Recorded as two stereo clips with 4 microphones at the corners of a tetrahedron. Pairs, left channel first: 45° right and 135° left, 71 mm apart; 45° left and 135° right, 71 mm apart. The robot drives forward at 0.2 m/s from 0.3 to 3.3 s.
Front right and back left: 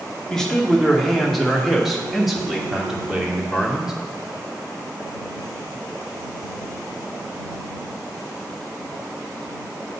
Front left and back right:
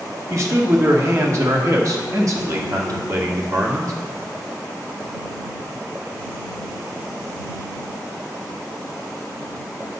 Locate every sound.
0.3 s a man speaking: 120° right, 1.3 m; by 3.9 s 145° right, 1.6 m